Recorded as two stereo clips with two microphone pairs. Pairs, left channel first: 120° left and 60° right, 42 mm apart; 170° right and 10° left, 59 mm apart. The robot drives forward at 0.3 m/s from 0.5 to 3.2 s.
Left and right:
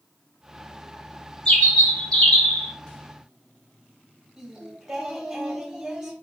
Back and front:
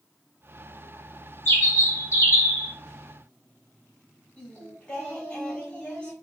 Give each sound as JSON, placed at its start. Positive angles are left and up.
{"t": 1.4, "sound": "a bird", "azimuth_deg": 180, "distance_m": 1.6}
{"t": 4.4, "sound": "singing", "azimuth_deg": -120, "distance_m": 1.0}